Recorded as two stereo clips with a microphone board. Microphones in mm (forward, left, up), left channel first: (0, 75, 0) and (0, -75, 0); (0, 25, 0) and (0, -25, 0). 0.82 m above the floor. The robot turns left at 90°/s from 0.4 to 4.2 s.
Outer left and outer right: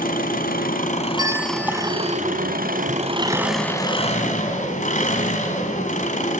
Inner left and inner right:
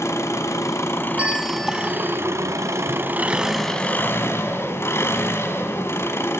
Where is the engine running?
105° left, 4.5 m; by 6.4 s 120° left, 4.5 m.